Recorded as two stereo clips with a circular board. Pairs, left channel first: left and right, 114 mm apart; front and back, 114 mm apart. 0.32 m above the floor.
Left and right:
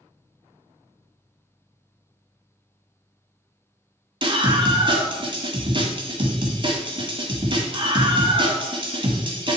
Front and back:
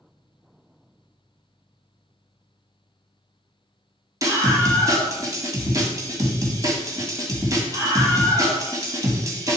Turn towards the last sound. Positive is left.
turn(degrees=-125)